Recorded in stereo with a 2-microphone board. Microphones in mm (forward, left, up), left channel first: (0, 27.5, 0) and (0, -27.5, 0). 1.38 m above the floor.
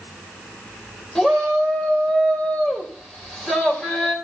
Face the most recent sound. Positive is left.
turn(degrees=5)  # may be behind; listen again after turning